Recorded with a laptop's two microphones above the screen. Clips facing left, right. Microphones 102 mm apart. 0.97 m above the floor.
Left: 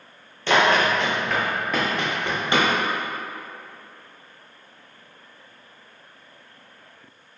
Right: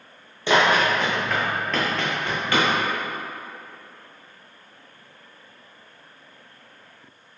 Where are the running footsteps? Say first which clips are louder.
Even; 15° right (ahead or behind), 1.1 m; by 2.7 s 25° left (ahead or behind), 1.2 m.